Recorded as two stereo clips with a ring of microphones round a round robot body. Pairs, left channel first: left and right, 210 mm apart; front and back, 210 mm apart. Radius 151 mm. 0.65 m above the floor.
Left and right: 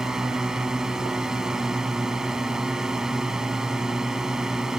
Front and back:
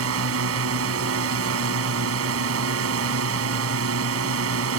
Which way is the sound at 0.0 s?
Straight behind.